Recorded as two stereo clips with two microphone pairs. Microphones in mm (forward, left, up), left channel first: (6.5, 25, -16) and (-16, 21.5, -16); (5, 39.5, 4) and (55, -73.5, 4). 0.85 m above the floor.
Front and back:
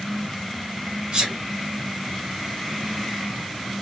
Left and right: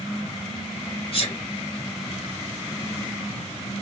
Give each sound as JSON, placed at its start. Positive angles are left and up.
{"t": 1.1, "sound": "a sneeze", "azimuth_deg": 150, "distance_m": 1.8}